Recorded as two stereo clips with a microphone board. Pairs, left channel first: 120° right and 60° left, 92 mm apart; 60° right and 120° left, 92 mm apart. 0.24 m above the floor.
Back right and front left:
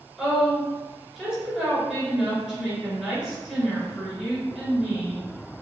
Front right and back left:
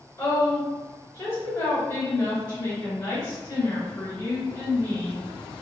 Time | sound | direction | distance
0.2 | a woman speaking | 30° right | 1.0 m